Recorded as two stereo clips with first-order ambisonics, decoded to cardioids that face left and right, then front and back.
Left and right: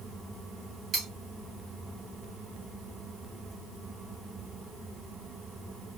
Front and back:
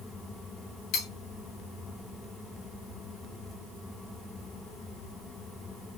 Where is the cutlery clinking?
30° right, 1.3 m.